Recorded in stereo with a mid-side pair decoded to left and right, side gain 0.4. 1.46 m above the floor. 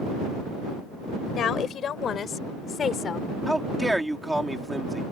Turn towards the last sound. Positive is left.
turn(degrees=-10)